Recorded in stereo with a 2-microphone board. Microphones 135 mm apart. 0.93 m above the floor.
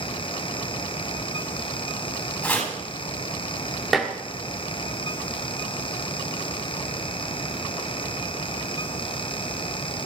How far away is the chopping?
About 9 m.